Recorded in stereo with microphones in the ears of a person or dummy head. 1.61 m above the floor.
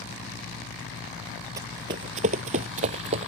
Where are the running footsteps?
20° right (ahead or behind); by 3.3 s 40° right (ahead or behind).